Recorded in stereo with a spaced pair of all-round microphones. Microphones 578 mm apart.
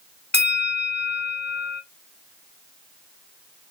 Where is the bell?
15° left (ahead or behind), 0.7 m.